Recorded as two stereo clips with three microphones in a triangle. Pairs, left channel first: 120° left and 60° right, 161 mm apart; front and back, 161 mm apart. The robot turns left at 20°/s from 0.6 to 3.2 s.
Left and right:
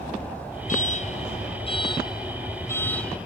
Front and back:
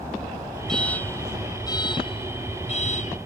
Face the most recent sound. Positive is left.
turn(degrees=35)